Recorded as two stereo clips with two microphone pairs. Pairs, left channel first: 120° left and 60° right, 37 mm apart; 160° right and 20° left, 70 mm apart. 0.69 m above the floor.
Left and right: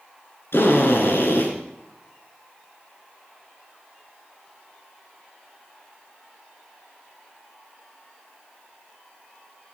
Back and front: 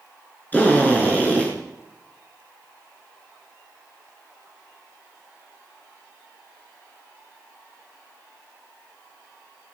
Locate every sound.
0.5 s a drill: 135° left, 5 m